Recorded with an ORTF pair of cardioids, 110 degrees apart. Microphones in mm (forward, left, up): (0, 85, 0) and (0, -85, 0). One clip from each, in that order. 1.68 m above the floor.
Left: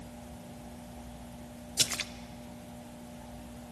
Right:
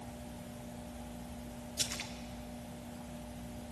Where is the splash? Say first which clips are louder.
Left 7 dB; 40° left, 0.8 m.